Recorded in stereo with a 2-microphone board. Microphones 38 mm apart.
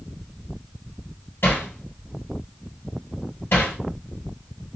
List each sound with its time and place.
1.4 s hammering: 70° left (ahead or behind), 2 m